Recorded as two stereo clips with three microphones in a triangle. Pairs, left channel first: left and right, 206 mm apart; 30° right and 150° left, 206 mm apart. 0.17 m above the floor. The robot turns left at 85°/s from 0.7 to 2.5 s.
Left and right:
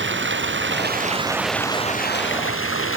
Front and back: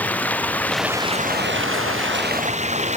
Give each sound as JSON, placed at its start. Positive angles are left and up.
{"t": 0.0, "sound": "running water", "azimuth_deg": -115}